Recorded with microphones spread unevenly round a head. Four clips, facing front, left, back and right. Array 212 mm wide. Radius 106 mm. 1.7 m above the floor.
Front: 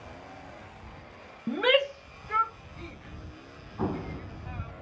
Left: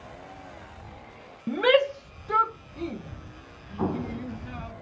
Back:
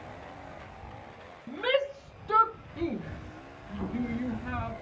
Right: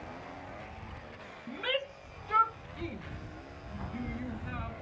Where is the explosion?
60° left.